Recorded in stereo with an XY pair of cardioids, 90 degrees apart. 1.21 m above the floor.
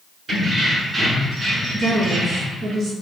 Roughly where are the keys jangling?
Ahead right.